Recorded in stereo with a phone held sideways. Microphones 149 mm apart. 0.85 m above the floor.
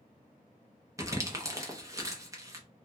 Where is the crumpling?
20° right (ahead or behind), 0.7 m.